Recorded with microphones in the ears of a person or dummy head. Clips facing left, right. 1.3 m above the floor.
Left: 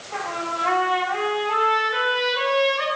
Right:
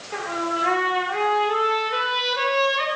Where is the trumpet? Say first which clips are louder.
Right 2 dB; 25° right (ahead or behind), 1.9 m.